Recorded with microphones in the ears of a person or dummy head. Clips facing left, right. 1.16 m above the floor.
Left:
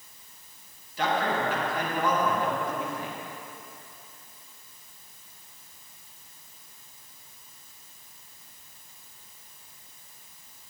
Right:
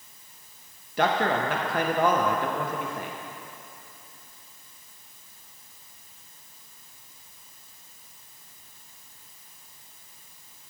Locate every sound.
1.0 s a man speaking: 45° right (ahead or behind), 0.8 m